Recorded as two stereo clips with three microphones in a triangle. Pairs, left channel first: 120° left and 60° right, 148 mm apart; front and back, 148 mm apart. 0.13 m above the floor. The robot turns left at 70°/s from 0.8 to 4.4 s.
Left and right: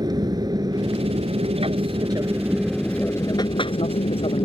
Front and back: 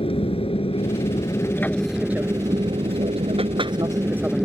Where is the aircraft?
15° right; by 4.5 s 95° left.